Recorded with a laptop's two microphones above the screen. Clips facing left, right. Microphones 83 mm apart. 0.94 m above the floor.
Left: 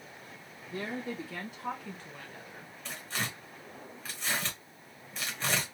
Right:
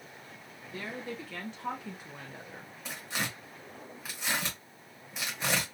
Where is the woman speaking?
30° left (ahead or behind), 1.1 m; by 2.7 s 35° right (ahead or behind), 1.0 m.